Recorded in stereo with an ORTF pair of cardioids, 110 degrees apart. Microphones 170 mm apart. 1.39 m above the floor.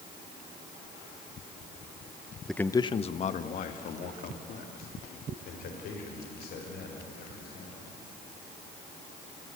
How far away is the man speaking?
About 0.8 m.